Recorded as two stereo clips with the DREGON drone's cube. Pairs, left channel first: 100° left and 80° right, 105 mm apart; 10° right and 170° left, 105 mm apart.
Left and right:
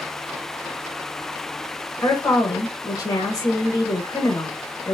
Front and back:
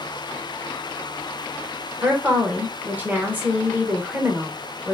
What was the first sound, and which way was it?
A woman speaking, 110° left.